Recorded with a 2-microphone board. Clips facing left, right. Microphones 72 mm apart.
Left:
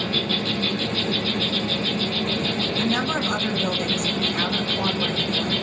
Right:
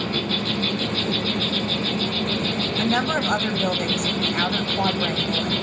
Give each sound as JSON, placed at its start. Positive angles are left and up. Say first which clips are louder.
{"t": 0.0, "sound": "an insect", "louder": "even", "side_deg": -30, "distance_m": 5.0}
{"t": 2.8, "sound": "a woman speaking", "louder": "right 3 dB", "side_deg": -50, "distance_m": 1.7}